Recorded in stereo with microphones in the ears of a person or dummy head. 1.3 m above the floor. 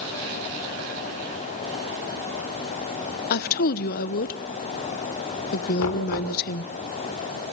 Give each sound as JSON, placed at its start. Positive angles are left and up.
{"t": 3.3, "sound": "a woman speaking", "side_deg": 50, "distance_m": 1.0}
{"t": 5.8, "sound": "knocking", "side_deg": 85, "distance_m": 4.0}